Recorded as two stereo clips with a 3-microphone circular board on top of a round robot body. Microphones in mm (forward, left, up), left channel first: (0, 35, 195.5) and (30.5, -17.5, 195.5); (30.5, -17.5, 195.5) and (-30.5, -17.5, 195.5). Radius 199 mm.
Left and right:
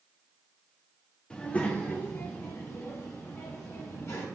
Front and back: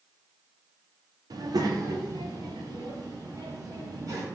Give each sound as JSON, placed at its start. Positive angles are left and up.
{"t": 1.3, "sound": "a child speaking", "azimuth_deg": -165, "distance_m": 1.6}